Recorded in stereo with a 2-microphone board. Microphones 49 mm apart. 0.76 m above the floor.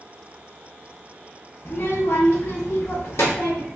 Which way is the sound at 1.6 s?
50° left (ahead or behind).